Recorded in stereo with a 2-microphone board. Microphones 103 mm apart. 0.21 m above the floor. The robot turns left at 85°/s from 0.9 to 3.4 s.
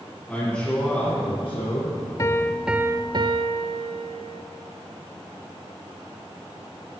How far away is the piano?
About 0.5 m.